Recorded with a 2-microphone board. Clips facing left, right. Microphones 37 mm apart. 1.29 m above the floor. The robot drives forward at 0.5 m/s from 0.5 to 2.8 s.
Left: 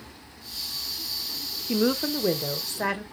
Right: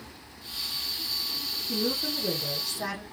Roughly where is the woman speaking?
Left.